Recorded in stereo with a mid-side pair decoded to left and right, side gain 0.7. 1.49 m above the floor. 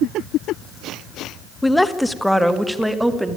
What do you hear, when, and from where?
1.6 s a woman speaking: 5° left, 1.3 m; by 3.4 s 5° right, 2.5 m